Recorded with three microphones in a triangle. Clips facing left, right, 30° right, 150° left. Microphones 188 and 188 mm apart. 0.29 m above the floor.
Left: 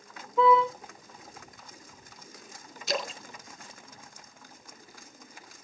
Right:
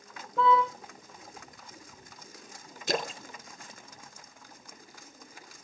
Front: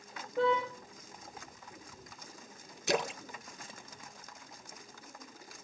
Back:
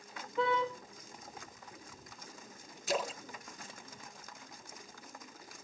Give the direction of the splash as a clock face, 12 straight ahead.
2 o'clock.